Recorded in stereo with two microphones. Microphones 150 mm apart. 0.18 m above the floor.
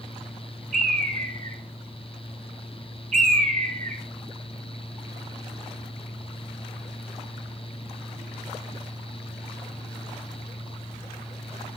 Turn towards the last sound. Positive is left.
turn(degrees=-55)  # may be behind; listen again after turning